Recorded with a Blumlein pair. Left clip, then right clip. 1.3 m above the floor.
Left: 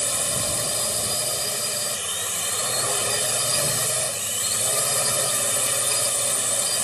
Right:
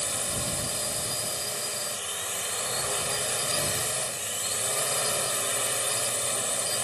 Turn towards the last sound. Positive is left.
turn(degrees=15)